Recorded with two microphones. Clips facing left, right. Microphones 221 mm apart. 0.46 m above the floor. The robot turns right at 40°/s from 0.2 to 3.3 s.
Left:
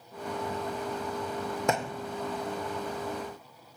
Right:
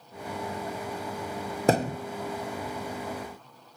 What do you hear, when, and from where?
1.7 s a thud: 35° right (ahead or behind), 0.6 m; by 2.0 s 45° right (ahead or behind), 0.6 m